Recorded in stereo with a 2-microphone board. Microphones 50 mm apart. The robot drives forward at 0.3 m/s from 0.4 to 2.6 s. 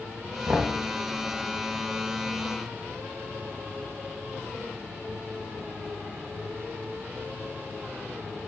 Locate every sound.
0.5 s knocking: 40° right (ahead or behind), 2.5 m